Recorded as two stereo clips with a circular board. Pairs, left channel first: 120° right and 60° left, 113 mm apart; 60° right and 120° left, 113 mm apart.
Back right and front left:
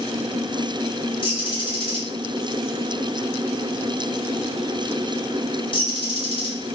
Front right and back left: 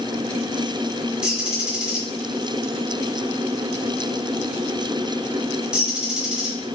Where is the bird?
160° right, 0.8 m.